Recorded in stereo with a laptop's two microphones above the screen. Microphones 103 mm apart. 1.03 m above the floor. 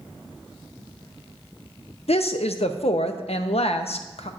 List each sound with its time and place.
2.1 s a woman speaking: 80° left, 0.7 m